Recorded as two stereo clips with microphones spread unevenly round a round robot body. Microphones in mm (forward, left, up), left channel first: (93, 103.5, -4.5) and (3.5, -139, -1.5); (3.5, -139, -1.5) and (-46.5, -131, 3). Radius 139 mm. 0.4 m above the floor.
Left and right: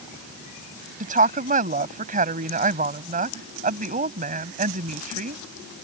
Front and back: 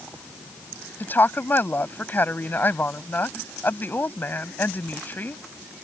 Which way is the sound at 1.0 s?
55° right.